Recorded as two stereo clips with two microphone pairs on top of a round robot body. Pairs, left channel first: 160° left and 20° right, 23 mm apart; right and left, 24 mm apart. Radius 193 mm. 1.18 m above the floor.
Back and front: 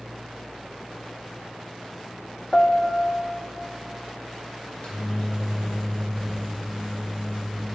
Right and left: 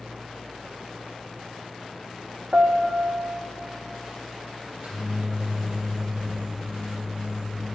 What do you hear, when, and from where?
2.5 s a piano: 125° left, 0.6 m
4.6 s a microwave: 125° left, 1.5 m